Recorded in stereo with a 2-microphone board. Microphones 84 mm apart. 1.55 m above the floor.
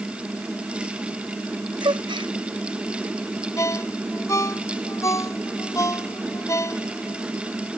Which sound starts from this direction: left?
A ringtone, at 3.6 s.